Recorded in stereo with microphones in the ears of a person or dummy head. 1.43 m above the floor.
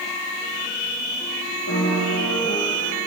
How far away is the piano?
About 2 m.